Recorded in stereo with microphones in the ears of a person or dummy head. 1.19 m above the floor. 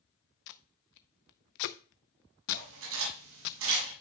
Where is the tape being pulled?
55° left (ahead or behind), 0.7 m.